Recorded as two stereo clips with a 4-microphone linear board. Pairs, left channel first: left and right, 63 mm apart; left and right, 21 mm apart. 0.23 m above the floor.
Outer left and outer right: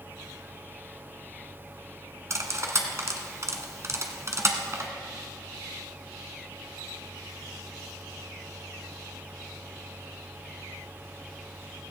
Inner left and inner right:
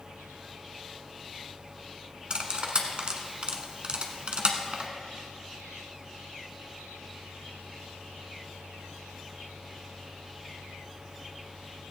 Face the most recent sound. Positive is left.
turn(degrees=-45)  # may be behind; listen again after turning